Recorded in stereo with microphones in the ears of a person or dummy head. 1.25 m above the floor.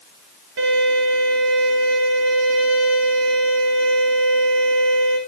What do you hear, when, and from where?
0.6 s a violin: 65° right (ahead or behind), 4.5 m